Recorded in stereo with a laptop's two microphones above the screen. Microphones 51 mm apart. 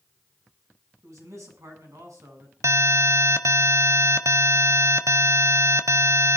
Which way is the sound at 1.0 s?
75° right (ahead or behind).